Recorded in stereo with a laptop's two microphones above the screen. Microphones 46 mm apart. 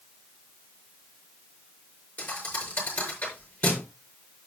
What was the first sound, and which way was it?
A thud, 45° left (ahead or behind).